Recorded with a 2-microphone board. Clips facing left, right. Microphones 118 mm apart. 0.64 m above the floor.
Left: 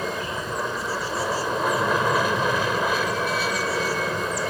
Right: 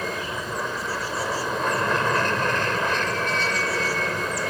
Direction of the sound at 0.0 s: 10° left (ahead or behind).